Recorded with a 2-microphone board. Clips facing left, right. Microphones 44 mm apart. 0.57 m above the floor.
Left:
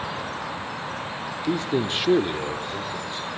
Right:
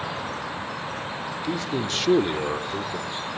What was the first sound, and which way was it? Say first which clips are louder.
A man speaking: left 4 dB; 40° left (ahead or behind).